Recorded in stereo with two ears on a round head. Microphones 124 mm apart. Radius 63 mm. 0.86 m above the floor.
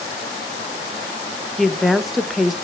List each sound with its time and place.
1.6 s a woman speaking: centre (ahead or behind), 0.6 m